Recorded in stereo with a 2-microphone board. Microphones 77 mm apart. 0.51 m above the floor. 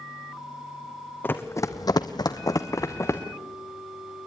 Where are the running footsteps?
25° left (ahead or behind), 1.4 m; by 3.2 s 40° left (ahead or behind), 2 m.